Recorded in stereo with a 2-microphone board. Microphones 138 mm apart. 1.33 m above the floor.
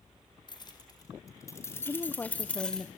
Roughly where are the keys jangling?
Left.